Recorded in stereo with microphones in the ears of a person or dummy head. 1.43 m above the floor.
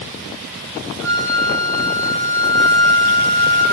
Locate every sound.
1.0 s a flute: 20° right (ahead or behind), 1.0 m